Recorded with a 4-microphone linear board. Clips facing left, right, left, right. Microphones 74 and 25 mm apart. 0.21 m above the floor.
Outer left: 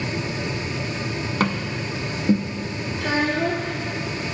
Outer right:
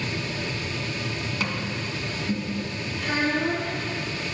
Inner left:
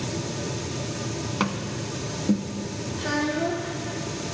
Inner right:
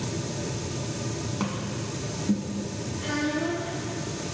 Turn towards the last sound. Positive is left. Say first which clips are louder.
# outer left 3 dB, inner left 2 dB
turn(degrees=75)  # may be behind; listen again after turning